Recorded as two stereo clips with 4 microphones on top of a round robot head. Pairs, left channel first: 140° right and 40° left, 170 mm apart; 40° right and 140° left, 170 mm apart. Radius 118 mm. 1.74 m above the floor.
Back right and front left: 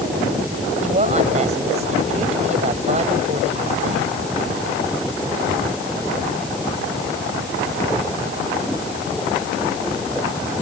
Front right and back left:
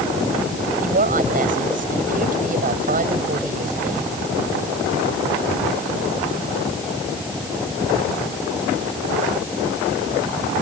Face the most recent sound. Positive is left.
turn(degrees=95)